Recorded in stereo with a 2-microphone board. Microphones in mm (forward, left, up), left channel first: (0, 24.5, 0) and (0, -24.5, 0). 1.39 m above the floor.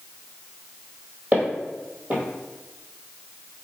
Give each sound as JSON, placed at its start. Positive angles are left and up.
{"t": 1.3, "sound": "footsteps", "side_deg": -35, "distance_m": 1.8}